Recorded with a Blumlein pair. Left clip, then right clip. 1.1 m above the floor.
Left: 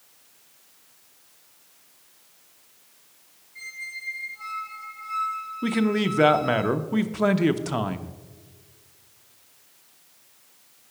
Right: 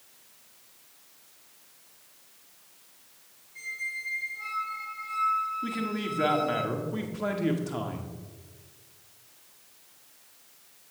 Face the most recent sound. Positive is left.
turn(degrees=50)